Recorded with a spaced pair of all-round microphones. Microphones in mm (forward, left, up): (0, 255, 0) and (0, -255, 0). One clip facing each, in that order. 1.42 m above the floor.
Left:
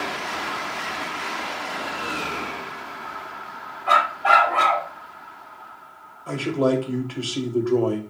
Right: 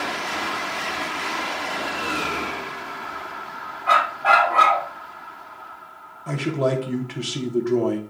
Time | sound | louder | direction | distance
3.9 | a dog barking | even | centre (ahead or behind) | 1.4 m
6.3 | a man speaking | left 2 dB | 45° right (ahead or behind) | 0.8 m